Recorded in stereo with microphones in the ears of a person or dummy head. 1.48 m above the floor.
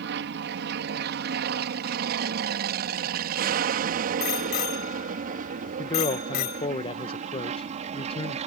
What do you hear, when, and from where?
0.0 s an aircraft: 60° right (ahead or behind); by 8.5 s 35° right (ahead or behind)
4.2 s a bicycle bell: 60° left (ahead or behind)
5.8 s a man speaking: 35° left (ahead or behind)